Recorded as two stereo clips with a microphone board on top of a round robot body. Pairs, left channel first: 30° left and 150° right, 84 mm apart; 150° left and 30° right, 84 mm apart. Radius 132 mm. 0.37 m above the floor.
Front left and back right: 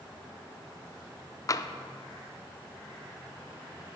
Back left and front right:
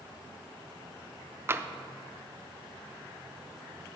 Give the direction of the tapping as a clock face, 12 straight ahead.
12 o'clock.